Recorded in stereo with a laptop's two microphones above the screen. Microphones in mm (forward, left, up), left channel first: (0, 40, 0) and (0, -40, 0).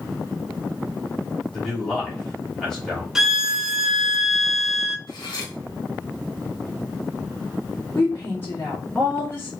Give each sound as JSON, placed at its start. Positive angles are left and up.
{"t": 1.5, "sound": "a man speaking", "side_deg": 5, "distance_m": 3.0}
{"t": 3.1, "sound": "a violin", "side_deg": -5, "distance_m": 0.7}
{"t": 5.1, "sound": "cutlery clinking", "side_deg": 55, "distance_m": 1.6}
{"t": 8.0, "sound": "a woman speaking", "side_deg": 25, "distance_m": 2.0}